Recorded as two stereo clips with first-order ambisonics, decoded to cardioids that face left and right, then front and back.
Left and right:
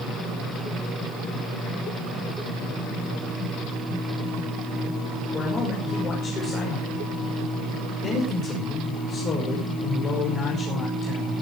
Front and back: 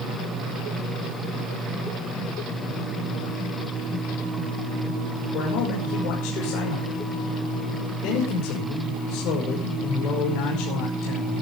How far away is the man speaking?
About 5.5 m.